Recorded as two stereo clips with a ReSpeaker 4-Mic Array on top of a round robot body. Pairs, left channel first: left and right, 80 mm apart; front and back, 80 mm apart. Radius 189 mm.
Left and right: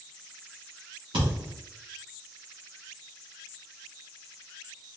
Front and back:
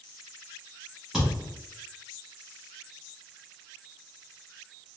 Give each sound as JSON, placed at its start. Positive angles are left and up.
{"t": 1.1, "sound": "a thud", "azimuth_deg": -95, "distance_m": 0.6}